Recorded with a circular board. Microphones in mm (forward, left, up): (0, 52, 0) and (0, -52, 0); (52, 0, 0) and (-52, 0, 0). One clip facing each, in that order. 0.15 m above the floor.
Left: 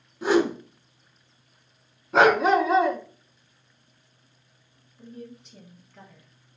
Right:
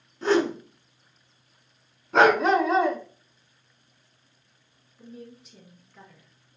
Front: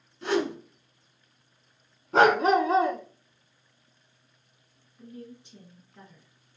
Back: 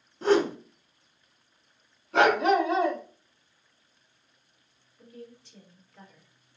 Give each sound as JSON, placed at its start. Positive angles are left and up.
{"t": 0.2, "sound": "a whoosh", "azimuth_deg": 165, "distance_m": 0.5}
{"t": 2.1, "sound": "a dog barking", "azimuth_deg": 5, "distance_m": 0.5}
{"t": 5.0, "sound": "a woman speaking", "azimuth_deg": -10, "distance_m": 1.1}